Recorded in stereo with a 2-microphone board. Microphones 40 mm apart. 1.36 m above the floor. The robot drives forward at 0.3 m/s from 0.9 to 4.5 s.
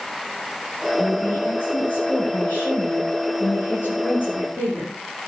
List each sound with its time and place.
1.0 s a woman speaking: 65° left (ahead or behind), 8.5 m; by 5.0 s 60° left (ahead or behind), 9 m